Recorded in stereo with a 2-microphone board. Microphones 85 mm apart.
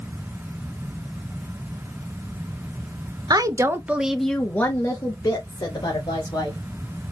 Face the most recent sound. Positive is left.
turn(degrees=50)  # may be behind; listen again after turning